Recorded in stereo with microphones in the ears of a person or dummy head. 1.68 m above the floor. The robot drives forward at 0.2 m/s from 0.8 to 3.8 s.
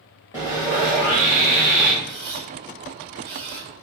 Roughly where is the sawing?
Centre.